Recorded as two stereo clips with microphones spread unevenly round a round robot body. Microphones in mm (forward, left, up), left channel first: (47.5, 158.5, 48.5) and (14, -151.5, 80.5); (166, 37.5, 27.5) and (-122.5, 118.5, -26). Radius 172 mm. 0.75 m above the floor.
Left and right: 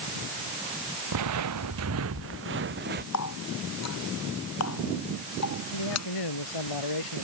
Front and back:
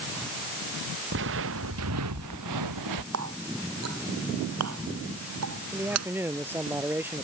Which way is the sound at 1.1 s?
135° right.